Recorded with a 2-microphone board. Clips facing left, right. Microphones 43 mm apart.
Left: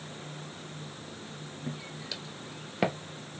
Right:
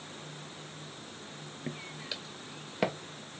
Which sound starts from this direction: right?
Footsteps, at 1.7 s.